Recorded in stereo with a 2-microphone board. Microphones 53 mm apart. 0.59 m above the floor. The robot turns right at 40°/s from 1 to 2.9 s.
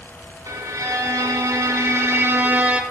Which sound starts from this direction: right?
A violin, at 0.5 s.